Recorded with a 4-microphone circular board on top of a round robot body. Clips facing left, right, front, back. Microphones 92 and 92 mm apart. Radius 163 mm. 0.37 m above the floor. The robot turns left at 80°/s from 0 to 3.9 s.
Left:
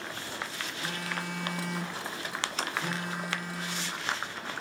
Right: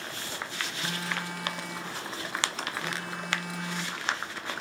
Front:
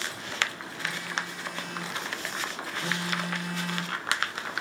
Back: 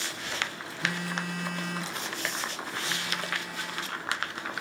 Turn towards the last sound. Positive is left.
turn(degrees=-45)